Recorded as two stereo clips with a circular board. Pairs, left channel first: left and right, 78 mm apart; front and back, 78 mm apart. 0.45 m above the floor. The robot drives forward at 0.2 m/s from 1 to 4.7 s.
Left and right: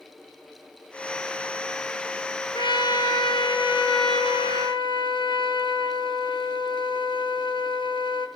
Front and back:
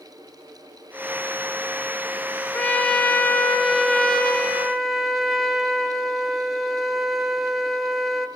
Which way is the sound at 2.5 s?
75° left.